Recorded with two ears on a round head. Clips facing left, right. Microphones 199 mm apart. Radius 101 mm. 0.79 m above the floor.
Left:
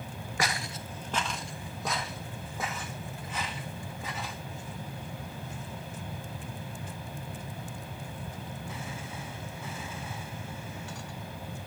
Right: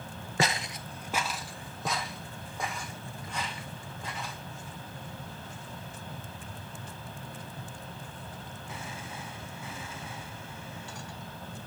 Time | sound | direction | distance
0.4 | footsteps | 25° right (ahead or behind) | 0.8 m